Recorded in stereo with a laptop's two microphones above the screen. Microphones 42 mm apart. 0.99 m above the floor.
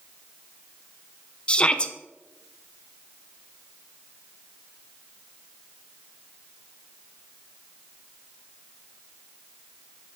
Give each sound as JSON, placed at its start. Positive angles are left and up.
{"t": 1.5, "sound": "a shout", "side_deg": 25, "distance_m": 0.6}